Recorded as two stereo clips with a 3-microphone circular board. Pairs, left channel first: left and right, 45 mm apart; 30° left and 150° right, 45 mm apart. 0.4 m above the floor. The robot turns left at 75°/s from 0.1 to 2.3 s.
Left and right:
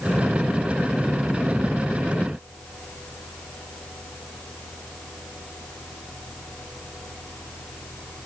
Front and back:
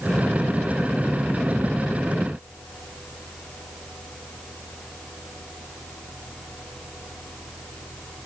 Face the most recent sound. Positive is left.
No sound to turn to.